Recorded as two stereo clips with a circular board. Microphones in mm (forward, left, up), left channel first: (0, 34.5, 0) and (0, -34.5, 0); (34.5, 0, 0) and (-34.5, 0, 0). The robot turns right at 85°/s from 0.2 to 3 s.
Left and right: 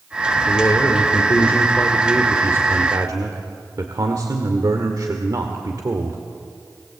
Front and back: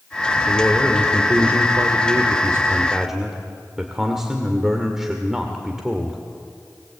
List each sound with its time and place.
0.5 s a man speaking: 50° left, 1.7 m; by 6.2 s 95° right, 1.7 m